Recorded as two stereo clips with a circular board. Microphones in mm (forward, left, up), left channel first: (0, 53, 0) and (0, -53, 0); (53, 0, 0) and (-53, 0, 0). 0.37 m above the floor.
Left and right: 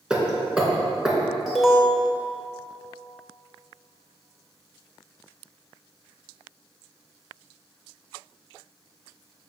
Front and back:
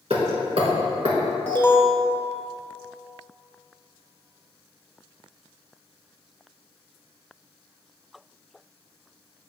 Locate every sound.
0.1 s hammering: 170° right, 2 m
1.5 s an alarm: 5° right, 1.3 m